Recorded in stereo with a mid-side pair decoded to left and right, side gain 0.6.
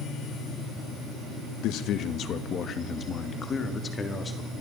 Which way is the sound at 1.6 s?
65° left.